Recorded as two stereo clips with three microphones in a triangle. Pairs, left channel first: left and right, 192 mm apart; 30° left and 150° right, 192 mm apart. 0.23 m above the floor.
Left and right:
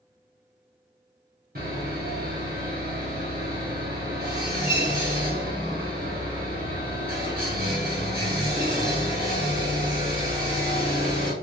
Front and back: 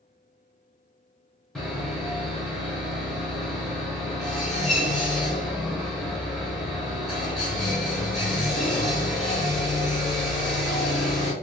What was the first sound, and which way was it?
Sawing, 60° right.